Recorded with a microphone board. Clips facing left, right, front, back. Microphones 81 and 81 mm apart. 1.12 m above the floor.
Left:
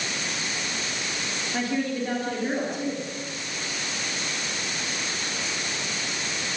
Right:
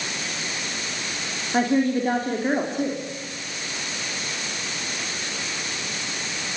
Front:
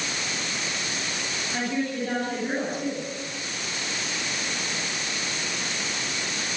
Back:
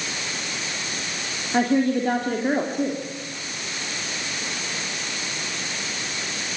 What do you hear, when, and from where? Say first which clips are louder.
1.5 s a woman speaking: right 7 dB, back 9 dB; 140° right, 3 m